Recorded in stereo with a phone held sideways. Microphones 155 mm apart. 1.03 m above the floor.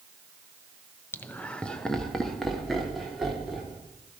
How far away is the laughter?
About 0.6 m.